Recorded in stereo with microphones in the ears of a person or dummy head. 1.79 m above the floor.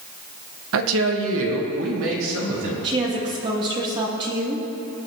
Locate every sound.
0.7 s a woman speaking: 85° right, 1.2 m; by 2.7 s 75° right (ahead or behind), 4 m
2.8 s a woman speaking: 30° right (ahead or behind), 3 m